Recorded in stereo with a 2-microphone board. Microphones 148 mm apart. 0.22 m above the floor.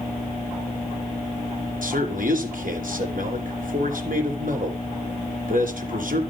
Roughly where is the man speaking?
Right.